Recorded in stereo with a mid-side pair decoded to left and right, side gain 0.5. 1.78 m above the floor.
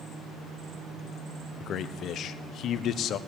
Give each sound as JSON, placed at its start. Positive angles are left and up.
{"t": 1.6, "sound": "a man speaking", "azimuth_deg": 60, "distance_m": 0.9}